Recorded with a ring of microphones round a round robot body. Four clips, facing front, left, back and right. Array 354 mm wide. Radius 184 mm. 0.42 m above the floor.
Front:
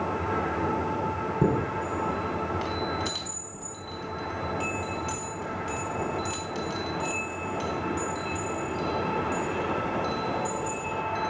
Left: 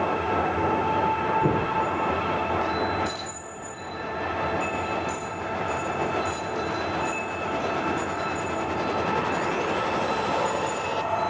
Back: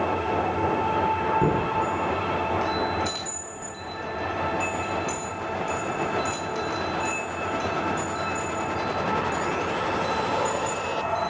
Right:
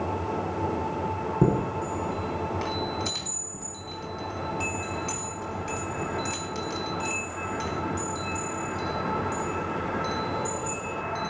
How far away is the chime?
About 4 m.